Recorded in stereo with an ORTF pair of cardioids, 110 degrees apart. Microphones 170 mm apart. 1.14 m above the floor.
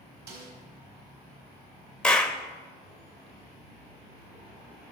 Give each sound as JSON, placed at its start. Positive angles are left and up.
{"t": 0.3, "sound": "a snare drum", "azimuth_deg": -70, "distance_m": 4.0}
{"t": 2.0, "sound": "a clap", "azimuth_deg": 5, "distance_m": 0.7}